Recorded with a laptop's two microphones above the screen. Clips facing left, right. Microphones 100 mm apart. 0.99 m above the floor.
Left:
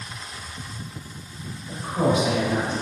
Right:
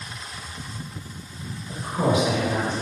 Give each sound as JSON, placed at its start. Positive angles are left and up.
{"t": 1.7, "sound": "a woman speaking", "side_deg": 40, "distance_m": 1.7}